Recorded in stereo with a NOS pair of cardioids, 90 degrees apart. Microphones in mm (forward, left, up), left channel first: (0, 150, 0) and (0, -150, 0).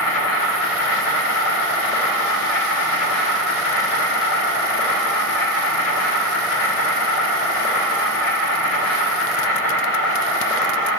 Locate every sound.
0.0 s an insect: 55° left, 1.9 m